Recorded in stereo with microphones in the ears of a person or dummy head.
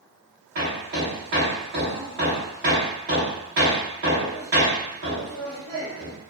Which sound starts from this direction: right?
Hammering, at 0.6 s.